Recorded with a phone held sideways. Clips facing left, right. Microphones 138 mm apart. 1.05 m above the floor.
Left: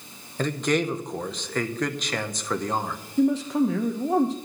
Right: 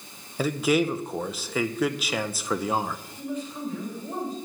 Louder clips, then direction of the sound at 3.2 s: Left 14 dB; 70° left (ahead or behind).